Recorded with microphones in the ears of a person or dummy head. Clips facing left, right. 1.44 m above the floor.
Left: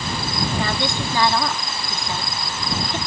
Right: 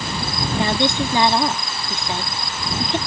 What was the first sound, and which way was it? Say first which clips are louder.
A woman speaking: right 4 dB; 20° right (ahead or behind).